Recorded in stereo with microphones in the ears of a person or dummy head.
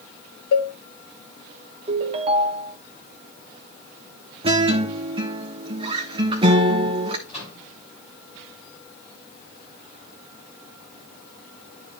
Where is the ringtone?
40° right (ahead or behind), 0.8 m.